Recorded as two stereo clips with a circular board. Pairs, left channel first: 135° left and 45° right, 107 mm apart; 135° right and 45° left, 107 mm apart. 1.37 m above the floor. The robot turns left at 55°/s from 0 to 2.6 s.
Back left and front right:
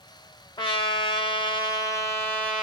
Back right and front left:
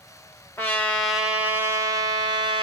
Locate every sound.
0.6 s a trumpet: 165° left, 1.2 m; by 2.6 s 55° left, 1.2 m